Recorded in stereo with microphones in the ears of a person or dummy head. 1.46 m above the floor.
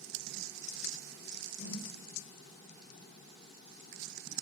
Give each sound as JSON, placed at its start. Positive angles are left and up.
{"t": 1.6, "sound": "a whoosh", "side_deg": 70, "distance_m": 3.5}